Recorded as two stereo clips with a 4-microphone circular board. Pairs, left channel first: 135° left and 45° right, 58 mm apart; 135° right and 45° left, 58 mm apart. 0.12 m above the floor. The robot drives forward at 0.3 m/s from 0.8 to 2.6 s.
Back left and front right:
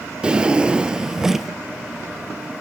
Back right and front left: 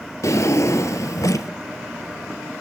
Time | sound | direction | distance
0.2 | a drawer | 115° right | 0.8 m